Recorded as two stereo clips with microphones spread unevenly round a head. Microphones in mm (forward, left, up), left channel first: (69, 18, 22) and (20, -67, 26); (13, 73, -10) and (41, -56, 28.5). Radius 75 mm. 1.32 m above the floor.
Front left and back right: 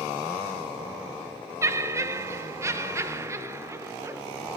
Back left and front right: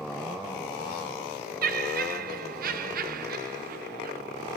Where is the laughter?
60° right, 1.3 m.